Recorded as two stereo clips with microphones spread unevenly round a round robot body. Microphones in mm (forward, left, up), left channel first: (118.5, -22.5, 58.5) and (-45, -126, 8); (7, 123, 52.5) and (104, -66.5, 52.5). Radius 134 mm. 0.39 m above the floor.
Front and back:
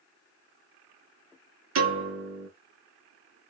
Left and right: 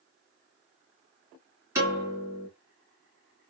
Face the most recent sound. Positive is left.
turn(degrees=-140)